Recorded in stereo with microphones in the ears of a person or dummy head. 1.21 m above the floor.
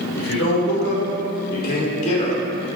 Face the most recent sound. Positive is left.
turn(degrees=35)  # may be behind; listen again after turning